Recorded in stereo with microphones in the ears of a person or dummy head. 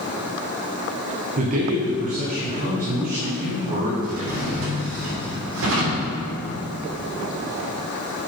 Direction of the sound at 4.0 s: 75° right (ahead or behind).